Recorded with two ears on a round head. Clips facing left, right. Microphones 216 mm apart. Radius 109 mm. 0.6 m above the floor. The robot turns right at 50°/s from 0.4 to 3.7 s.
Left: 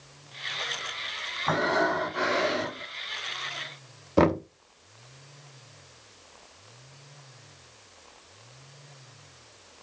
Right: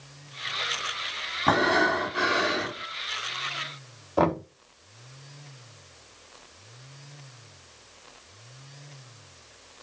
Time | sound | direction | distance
1.5 | breathing | 55° right | 4 m
4.2 | knocking | 35° left (ahead or behind) | 0.9 m